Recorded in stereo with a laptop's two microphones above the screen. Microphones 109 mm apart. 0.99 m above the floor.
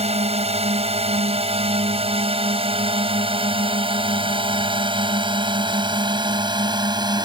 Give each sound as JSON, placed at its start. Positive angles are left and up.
{"t": 0.0, "sound": "a drone", "side_deg": -75}